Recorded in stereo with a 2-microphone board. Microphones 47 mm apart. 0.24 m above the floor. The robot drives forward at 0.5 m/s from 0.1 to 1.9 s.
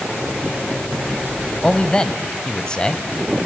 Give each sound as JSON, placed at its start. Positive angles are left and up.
{"t": 1.6, "sound": "a man speaking", "side_deg": 20, "distance_m": 0.9}